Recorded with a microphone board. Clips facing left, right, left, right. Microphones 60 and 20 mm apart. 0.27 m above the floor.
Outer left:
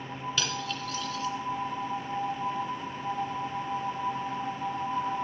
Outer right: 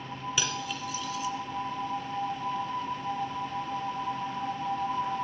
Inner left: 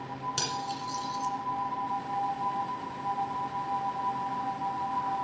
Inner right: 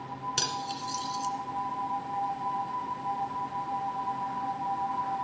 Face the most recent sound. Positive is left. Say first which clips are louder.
# even, inner right 2 dB
turn(degrees=-10)  # may be behind; listen again after turning